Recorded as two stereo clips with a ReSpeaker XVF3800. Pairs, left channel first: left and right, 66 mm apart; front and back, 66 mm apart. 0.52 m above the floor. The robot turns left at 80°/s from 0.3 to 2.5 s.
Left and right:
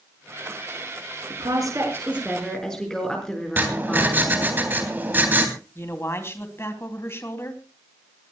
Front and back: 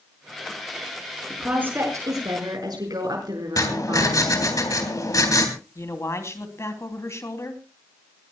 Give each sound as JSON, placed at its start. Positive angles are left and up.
{"t": 1.3, "sound": "a woman speaking", "azimuth_deg": -90, "distance_m": 6.0}
{"t": 3.6, "sound": "writing", "azimuth_deg": -30, "distance_m": 3.5}
{"t": 5.8, "sound": "a man speaking", "azimuth_deg": 40, "distance_m": 3.5}